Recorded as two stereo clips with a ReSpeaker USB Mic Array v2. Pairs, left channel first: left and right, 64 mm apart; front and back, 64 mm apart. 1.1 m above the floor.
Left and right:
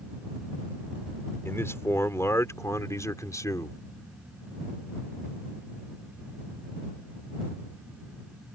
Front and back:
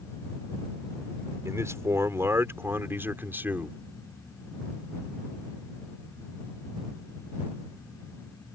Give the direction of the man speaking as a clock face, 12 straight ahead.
7 o'clock.